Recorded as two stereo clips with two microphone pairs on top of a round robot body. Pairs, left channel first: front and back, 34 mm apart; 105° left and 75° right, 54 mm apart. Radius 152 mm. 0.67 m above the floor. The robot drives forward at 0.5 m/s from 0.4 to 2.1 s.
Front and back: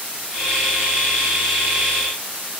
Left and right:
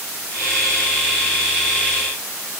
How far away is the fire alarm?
No fire alarm in this recording.